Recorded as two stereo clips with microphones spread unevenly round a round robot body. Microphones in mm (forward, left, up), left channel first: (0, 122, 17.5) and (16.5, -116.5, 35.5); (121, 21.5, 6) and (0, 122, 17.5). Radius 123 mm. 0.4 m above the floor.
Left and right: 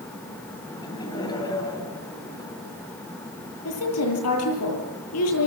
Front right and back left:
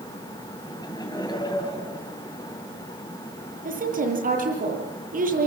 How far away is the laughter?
About 9 m.